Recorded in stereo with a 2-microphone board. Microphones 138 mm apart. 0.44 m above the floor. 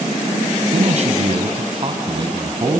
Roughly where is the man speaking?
Right.